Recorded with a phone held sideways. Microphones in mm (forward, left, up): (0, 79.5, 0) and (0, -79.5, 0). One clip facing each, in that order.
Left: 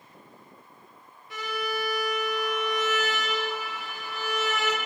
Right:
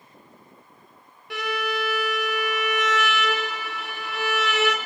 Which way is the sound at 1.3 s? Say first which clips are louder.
Right 4 dB; 75° right (ahead or behind).